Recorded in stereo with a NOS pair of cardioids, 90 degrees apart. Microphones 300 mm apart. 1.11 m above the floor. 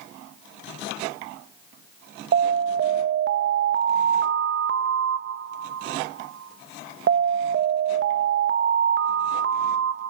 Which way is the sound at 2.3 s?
40° right.